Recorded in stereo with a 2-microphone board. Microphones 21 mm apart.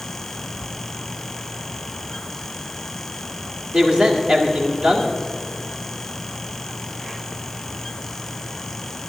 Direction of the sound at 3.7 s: 55° right (ahead or behind).